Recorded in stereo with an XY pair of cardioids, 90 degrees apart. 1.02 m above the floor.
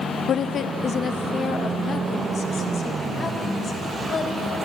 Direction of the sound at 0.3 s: 60° left.